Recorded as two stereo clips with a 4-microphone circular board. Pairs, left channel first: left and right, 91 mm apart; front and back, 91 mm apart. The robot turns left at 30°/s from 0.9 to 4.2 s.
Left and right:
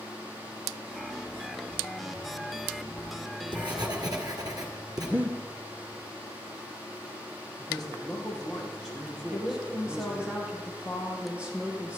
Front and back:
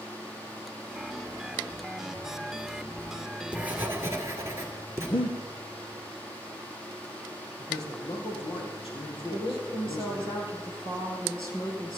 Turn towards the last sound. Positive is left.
turn(degrees=-15)